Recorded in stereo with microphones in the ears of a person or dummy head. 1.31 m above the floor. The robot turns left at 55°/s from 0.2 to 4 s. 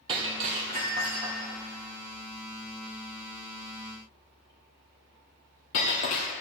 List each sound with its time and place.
0.1 s breaking glass: 35° right (ahead or behind), 1.6 m; by 6.3 s 40° left (ahead or behind), 1.6 m